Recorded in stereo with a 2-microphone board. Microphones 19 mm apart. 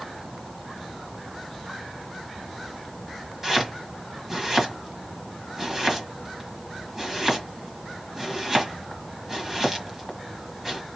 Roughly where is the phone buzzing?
No phone buzzing in this recording.